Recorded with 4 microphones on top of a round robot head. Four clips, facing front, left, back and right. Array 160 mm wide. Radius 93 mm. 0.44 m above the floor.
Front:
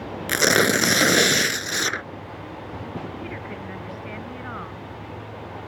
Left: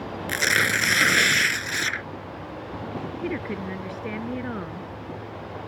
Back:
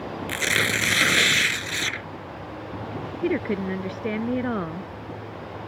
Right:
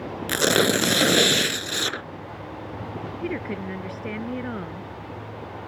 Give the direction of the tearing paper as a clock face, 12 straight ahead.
1 o'clock.